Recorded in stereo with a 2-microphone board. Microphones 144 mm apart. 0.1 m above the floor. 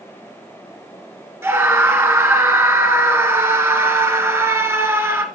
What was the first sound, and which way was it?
A scream, 20° right (ahead or behind).